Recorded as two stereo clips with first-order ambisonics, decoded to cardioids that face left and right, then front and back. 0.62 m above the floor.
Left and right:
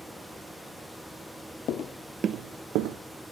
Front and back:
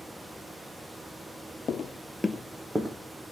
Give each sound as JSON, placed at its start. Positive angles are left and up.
{"t": 1.7, "sound": "footsteps", "azimuth_deg": 60, "distance_m": 0.8}